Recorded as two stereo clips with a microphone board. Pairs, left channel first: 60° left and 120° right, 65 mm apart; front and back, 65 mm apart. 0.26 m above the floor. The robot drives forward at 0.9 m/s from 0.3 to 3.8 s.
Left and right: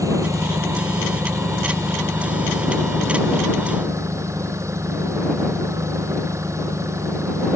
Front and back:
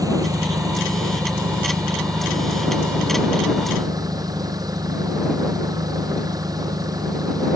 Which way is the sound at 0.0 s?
155° right.